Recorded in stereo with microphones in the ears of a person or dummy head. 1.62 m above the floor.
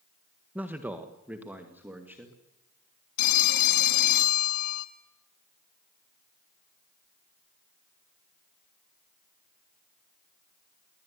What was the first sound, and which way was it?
A man speaking, 10° right (ahead or behind).